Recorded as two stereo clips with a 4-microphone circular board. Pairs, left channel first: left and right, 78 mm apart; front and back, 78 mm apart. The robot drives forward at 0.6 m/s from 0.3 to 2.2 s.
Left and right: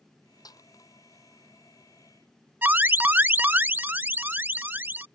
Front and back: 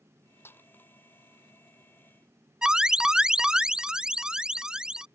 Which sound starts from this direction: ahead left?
A snare drum, at 0.5 s.